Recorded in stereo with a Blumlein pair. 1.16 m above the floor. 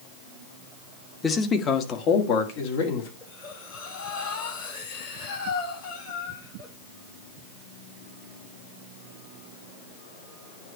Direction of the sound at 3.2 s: 60° left.